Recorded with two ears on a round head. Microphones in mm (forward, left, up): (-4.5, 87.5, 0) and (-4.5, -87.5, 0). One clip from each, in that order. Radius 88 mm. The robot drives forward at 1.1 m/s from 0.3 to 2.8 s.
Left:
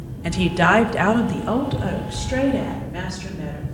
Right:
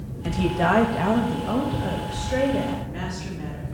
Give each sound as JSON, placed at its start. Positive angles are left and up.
{"t": 0.2, "sound": "a woman speaking", "side_deg": 45, "distance_m": 1.2}